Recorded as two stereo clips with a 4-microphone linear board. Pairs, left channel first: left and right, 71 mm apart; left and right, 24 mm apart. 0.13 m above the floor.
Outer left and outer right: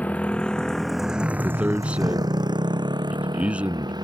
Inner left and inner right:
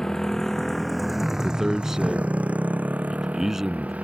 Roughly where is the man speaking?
Centre.